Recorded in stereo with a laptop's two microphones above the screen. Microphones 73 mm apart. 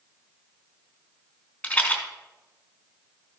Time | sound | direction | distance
1.6 | a rattle | 20° left (ahead or behind) | 2.5 m